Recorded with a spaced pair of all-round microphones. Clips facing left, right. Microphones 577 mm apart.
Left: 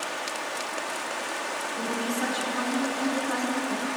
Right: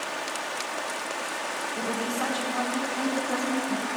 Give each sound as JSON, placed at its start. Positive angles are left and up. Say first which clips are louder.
{"t": 1.8, "sound": "a woman speaking", "louder": "left 1 dB", "side_deg": -80, "distance_m": 1.8}